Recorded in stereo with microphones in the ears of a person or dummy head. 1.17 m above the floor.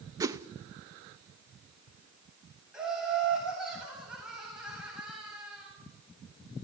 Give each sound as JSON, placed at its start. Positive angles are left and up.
{"t": 0.2, "sound": "a whoosh", "side_deg": -20, "distance_m": 0.5}
{"t": 2.7, "sound": "laughter", "side_deg": -5, "distance_m": 8.0}